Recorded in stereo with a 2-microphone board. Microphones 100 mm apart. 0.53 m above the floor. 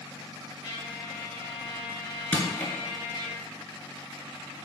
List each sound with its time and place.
0.6 s a trumpet: 45° left (ahead or behind), 2 m
2.3 s crushing: 15° left (ahead or behind), 1.5 m